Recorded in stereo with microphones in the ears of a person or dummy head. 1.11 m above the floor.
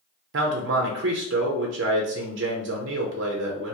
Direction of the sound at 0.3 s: 50° right (ahead or behind).